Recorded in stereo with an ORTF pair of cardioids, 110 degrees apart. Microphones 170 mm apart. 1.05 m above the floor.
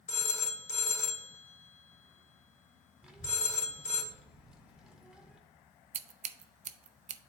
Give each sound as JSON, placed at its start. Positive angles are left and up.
{"t": 0.1, "sound": "a phone ringing", "azimuth_deg": 45, "distance_m": 1.5}
{"t": 3.0, "sound": "a child speaking", "azimuth_deg": -5, "distance_m": 1.8}
{"t": 5.9, "sound": "scissors", "azimuth_deg": -45, "distance_m": 0.5}